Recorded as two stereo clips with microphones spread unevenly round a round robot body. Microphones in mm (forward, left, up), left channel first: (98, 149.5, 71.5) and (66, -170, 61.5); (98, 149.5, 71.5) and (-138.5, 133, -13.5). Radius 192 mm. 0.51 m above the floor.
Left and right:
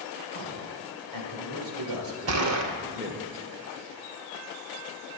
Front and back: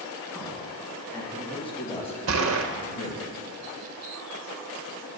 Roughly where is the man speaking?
Right.